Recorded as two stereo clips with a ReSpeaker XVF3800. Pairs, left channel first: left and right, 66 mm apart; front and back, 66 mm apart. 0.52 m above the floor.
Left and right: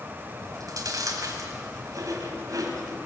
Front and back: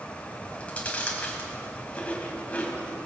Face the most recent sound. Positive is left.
turn(degrees=-70)